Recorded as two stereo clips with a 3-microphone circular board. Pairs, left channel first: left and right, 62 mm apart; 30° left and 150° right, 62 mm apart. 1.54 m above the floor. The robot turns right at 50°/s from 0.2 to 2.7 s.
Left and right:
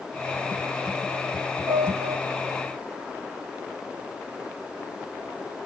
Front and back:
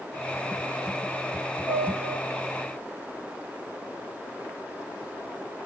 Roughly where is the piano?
Right.